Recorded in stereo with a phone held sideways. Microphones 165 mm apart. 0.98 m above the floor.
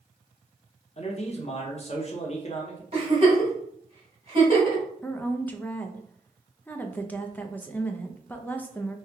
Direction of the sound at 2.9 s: 40° right (ahead or behind).